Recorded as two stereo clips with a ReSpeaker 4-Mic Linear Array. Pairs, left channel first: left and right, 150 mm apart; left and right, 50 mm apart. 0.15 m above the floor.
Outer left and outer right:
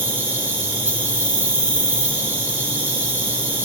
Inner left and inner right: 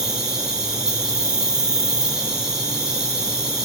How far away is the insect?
About 3.5 m.